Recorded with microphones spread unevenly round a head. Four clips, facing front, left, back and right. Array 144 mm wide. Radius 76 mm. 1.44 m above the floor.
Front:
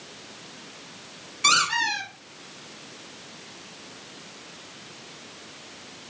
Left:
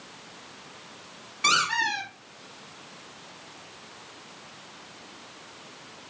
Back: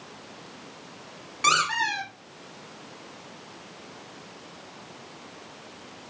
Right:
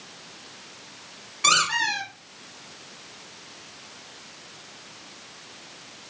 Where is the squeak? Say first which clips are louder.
Right 2 dB, even; 160° left, 3.5 m.